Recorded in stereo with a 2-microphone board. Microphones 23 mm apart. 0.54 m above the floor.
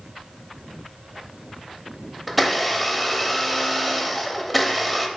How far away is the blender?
About 0.6 m.